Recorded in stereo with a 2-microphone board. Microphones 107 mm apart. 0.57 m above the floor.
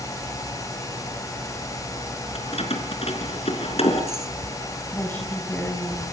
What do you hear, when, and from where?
2.4 s keys jangling: 65° left (ahead or behind), 4.5 m
4.9 s a woman speaking: 15° left (ahead or behind), 5.5 m